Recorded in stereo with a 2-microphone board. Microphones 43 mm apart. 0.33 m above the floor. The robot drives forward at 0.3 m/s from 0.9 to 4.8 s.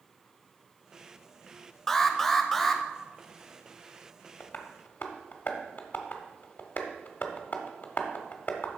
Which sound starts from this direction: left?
Tapping, at 4.4 s.